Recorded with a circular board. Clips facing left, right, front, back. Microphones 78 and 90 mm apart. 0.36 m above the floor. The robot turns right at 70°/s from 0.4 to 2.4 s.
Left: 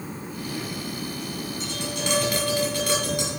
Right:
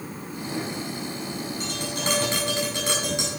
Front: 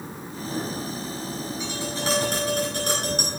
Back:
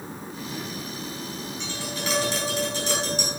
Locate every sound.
1.6 s tapping: 80° right, 6.5 m; by 3.4 s 25° right, 6.5 m